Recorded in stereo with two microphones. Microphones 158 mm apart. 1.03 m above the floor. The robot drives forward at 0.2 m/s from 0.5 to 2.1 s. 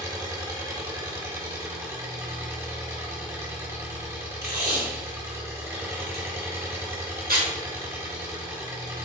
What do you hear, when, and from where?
0.0 s an engine running: 25° right (ahead or behind), 1.0 m; by 9.1 s 20° right (ahead or behind), 1.3 m
4.4 s tape being pulled: 80° right, 1.5 m